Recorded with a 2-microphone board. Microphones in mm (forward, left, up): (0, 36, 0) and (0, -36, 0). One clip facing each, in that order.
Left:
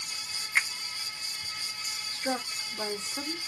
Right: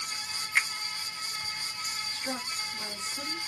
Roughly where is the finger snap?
Centre.